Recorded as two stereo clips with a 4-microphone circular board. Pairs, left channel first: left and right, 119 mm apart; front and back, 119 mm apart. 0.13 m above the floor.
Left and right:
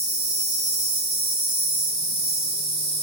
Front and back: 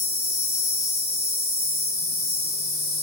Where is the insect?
65° right, 1.1 m.